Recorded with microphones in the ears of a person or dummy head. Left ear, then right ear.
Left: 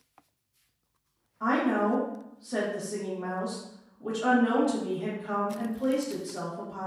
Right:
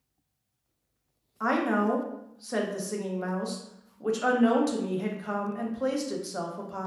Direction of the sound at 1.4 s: 70° right (ahead or behind).